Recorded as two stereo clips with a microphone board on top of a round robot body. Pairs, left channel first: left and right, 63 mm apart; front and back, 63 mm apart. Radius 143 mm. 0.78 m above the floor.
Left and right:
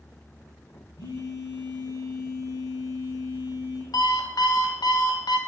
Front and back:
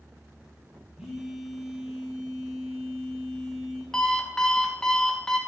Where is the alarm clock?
80° left, 1.0 m.